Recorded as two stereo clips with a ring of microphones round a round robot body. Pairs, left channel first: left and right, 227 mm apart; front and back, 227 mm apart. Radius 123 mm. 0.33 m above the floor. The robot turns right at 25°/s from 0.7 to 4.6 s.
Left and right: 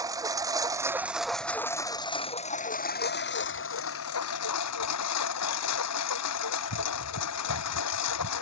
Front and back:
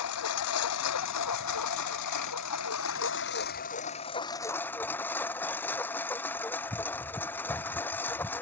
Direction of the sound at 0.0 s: 15° right.